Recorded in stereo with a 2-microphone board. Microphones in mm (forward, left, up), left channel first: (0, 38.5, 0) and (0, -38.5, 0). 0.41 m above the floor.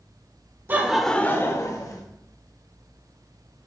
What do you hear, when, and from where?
0.7 s laughter: 25° right (ahead or behind), 0.8 m; by 2.0 s 55° left (ahead or behind), 1.5 m